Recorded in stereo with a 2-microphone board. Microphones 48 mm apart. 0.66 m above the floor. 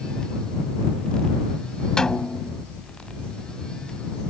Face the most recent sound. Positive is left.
turn(degrees=15)  # may be behind; listen again after turning